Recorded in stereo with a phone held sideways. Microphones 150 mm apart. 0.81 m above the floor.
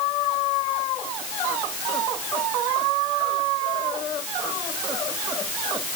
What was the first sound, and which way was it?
Only background noise.